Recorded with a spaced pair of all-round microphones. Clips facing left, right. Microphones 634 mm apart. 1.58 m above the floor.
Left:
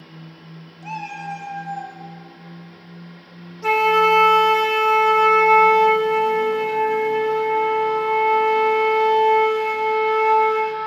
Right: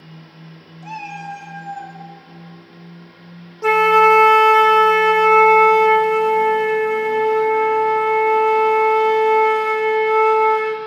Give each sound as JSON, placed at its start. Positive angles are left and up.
{"t": 0.8, "sound": "a cat meowing", "side_deg": 0, "distance_m": 0.9}
{"t": 3.6, "sound": "a flute", "side_deg": -70, "distance_m": 0.6}